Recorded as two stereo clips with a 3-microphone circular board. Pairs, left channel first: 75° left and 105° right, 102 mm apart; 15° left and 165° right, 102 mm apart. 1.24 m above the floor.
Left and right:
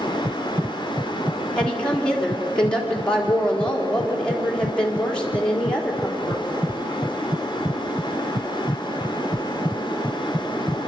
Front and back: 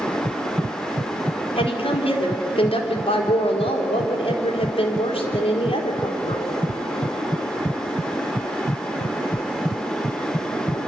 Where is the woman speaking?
5° right, 3.5 m.